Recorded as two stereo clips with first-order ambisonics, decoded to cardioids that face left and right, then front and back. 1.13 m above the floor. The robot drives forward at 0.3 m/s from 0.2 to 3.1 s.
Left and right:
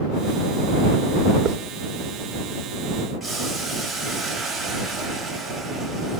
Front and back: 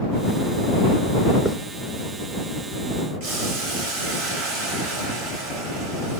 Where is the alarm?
No alarm in this recording.